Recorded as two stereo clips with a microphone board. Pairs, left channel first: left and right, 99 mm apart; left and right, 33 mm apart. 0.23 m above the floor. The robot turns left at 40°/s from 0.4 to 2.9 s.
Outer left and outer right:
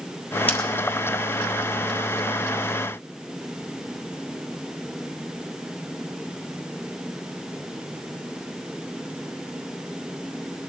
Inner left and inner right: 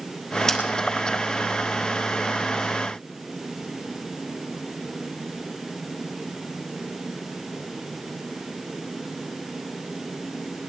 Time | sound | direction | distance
0.5 | scissors | 20° left (ahead or behind) | 3 m